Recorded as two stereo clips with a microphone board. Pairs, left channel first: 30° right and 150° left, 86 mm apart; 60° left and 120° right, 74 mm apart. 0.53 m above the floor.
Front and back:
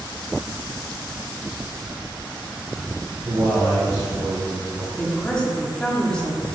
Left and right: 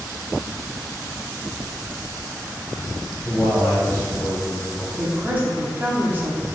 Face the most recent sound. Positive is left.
turn(degrees=-100)